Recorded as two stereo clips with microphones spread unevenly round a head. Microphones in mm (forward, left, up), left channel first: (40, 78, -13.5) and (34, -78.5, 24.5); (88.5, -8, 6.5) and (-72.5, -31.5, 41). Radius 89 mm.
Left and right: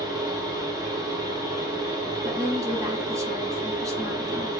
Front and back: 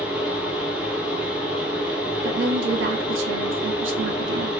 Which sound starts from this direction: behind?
A woman speaking, at 2.2 s.